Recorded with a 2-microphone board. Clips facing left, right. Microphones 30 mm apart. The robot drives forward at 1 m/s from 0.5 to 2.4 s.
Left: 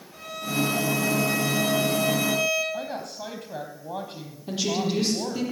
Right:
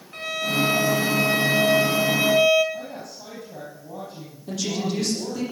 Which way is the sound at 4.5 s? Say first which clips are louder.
Left 1 dB; 30° left (ahead or behind).